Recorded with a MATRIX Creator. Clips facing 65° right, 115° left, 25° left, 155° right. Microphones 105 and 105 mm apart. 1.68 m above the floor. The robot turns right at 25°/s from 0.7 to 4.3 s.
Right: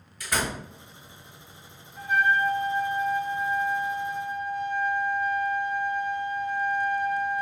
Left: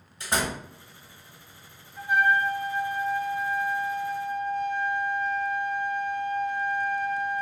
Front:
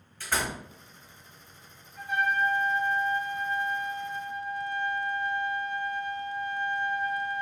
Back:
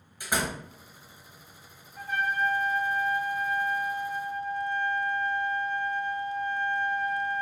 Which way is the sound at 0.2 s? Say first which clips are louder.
Left 1 dB, back 1 dB; 145° left.